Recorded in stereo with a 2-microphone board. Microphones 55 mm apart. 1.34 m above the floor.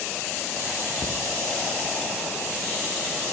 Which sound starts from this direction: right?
A cupboard door, at 1.0 s.